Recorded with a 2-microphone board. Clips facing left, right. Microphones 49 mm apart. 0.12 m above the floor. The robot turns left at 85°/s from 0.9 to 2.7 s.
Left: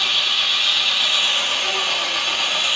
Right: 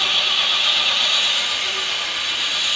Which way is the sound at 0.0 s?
Straight behind.